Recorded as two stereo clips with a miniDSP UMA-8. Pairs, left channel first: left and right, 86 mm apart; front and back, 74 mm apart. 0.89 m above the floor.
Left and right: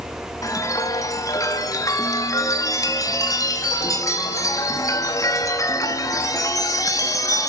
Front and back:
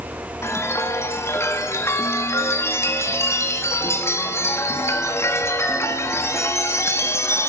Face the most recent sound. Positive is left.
turn(degrees=45)